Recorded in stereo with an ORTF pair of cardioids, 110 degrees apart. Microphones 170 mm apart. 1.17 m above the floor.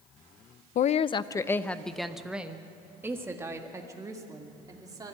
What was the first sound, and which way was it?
A woman speaking, 50° left.